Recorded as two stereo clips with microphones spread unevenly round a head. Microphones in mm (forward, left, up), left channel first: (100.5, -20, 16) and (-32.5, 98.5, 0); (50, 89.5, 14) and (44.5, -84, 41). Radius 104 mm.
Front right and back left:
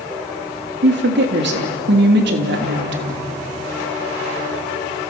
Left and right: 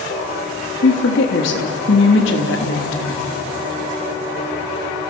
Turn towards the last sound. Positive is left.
turn(degrees=120)